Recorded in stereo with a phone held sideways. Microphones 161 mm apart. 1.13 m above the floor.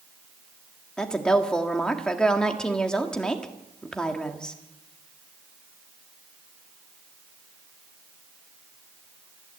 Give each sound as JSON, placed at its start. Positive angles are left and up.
{"t": 1.0, "sound": "a woman speaking", "side_deg": 5, "distance_m": 1.9}